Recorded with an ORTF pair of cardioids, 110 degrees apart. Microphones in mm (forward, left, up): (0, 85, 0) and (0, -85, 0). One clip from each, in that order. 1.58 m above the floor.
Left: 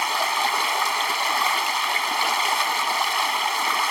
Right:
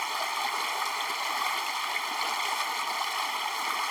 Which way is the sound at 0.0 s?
45° left.